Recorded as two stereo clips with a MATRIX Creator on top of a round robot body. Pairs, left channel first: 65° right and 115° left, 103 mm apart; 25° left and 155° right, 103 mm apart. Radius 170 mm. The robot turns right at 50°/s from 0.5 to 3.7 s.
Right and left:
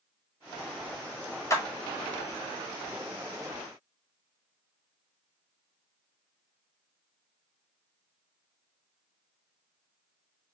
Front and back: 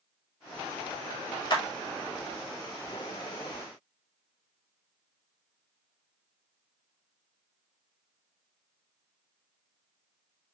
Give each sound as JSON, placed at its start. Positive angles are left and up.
{"t": 1.5, "sound": "a clap", "azimuth_deg": -15, "distance_m": 1.3}